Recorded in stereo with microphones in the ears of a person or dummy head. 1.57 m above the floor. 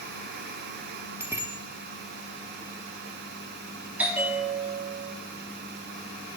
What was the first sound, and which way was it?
A bicycle bell, 10° right (ahead or behind).